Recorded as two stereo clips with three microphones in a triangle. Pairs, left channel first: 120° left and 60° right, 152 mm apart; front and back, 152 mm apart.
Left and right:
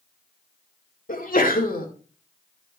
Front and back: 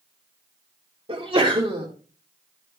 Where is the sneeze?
130° left, 2 m.